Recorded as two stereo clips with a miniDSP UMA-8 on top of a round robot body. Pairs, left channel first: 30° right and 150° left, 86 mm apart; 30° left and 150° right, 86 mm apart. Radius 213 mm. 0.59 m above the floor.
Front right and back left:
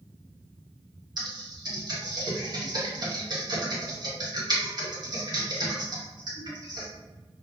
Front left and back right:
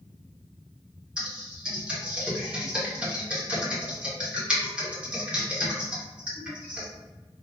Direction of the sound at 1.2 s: 135° left.